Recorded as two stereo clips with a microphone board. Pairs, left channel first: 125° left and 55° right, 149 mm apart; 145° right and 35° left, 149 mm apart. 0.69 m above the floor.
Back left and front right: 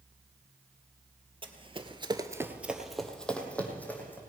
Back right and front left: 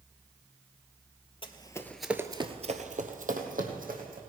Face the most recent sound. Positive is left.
turn(degrees=45)